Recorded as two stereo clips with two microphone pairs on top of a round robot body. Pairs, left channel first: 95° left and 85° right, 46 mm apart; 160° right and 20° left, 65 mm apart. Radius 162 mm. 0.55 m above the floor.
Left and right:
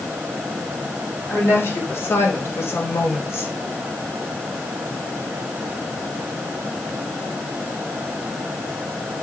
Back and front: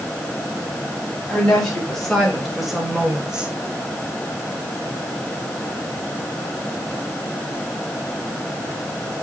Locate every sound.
1.3 s a woman speaking: 120° left, 5 m; by 3.5 s 95° left, 3 m